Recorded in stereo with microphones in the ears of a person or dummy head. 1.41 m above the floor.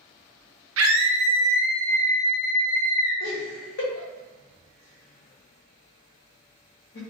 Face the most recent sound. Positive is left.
turn(degrees=80)